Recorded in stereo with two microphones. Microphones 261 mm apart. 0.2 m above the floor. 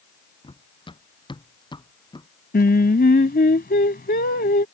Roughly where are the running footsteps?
Centre.